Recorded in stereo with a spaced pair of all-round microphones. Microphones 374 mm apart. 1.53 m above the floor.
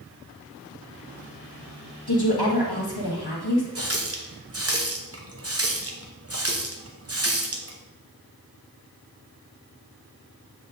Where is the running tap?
40° right (ahead or behind), 0.8 m.